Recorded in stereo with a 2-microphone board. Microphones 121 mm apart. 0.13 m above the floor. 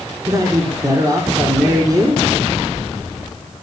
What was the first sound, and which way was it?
A man speaking, 30° right (ahead or behind).